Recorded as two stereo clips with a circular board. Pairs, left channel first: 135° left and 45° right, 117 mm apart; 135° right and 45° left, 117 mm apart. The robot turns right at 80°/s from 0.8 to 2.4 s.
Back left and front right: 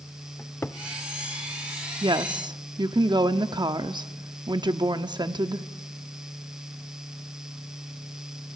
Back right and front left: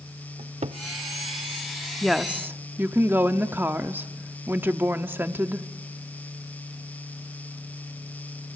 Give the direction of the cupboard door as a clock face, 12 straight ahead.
10 o'clock.